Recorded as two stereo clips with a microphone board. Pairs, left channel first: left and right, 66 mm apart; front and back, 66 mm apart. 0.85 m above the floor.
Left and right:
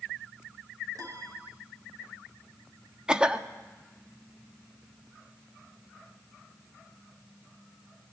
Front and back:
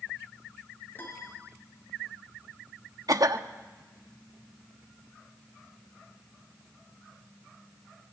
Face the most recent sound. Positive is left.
turn(degrees=-165)